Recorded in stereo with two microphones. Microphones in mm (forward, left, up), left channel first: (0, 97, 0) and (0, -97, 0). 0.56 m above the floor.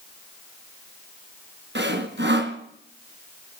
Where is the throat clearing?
No throat clearing in this recording.